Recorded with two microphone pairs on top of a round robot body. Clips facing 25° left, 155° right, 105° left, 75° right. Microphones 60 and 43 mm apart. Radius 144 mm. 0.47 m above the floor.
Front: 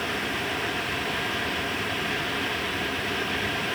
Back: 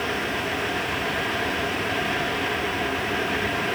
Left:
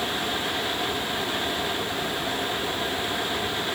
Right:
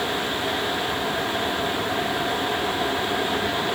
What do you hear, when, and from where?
Only background noise.